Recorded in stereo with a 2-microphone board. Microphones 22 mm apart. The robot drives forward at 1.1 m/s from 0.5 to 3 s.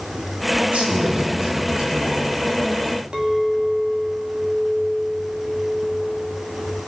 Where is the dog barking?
I don't hear a dog barking.